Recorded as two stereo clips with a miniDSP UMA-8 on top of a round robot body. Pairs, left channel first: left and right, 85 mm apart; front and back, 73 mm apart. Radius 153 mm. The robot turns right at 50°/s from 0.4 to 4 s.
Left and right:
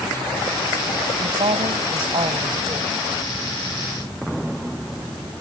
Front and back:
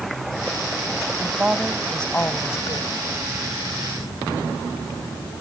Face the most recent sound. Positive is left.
turn(degrees=20)